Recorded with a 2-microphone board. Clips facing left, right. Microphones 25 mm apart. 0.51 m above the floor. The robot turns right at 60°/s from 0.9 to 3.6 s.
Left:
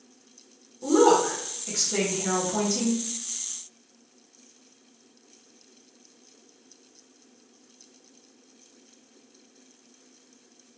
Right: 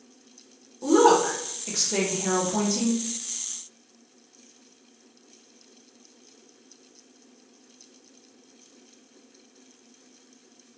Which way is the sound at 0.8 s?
115° right.